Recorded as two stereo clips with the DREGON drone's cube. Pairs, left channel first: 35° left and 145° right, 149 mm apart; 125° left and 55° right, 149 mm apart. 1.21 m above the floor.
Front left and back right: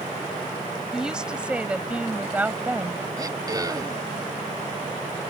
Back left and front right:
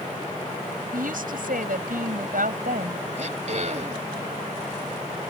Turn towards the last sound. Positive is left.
turn(degrees=-85)